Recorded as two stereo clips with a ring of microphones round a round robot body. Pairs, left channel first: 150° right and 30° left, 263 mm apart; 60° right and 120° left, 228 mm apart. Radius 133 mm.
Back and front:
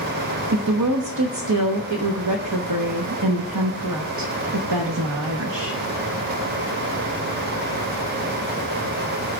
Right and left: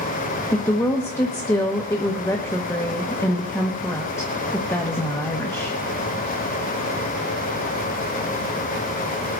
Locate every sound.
0.5 s a woman speaking: 20° left, 1.1 m